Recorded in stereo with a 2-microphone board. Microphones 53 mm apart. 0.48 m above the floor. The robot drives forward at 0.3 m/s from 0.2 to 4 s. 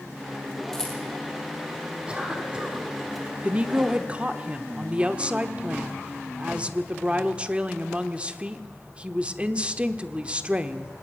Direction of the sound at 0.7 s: 10° left (ahead or behind).